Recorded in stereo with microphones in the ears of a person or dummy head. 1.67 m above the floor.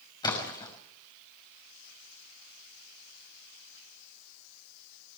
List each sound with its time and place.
0.2 s a splash: 25° left (ahead or behind), 5.5 m